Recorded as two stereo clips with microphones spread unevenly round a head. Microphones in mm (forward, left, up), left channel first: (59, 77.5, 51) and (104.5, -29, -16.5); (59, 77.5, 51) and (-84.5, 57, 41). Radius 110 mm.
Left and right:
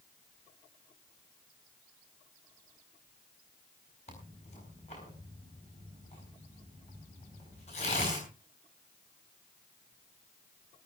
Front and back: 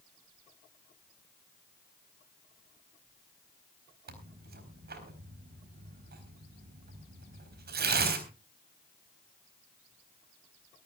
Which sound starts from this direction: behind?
Tearing paper, at 4.1 s.